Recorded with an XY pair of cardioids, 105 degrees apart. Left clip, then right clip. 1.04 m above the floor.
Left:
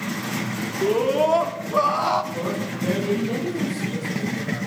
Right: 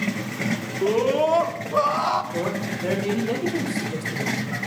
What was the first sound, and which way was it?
A scream, straight ahead.